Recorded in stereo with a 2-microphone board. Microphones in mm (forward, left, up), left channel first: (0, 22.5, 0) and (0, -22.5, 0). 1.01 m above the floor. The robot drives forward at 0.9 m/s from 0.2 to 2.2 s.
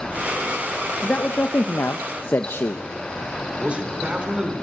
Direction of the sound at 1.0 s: 35° left (ahead or behind).